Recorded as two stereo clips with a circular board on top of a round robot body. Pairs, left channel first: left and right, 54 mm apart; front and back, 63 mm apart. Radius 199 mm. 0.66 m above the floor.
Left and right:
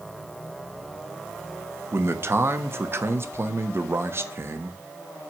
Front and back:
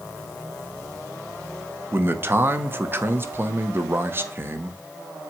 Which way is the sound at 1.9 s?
130° right.